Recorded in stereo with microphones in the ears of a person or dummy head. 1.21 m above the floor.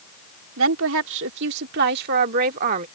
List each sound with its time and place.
0.6 s a woman speaking: 75° right (ahead or behind); by 2.9 s 40° right (ahead or behind)